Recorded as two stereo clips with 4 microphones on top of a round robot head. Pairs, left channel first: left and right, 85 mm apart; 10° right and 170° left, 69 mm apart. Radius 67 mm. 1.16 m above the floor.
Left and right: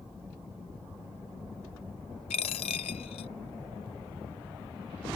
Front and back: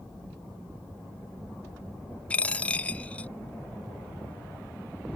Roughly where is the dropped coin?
Ahead left.